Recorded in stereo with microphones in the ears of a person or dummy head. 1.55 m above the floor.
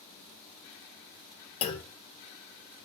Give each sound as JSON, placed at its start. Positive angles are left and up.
{"t": 1.6, "sound": "a clunk", "side_deg": 30, "distance_m": 0.6}